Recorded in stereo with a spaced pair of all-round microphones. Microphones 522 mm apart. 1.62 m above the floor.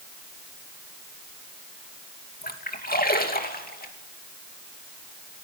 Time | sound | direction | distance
2.4 | a splash | 15° left (ahead or behind) | 2.5 m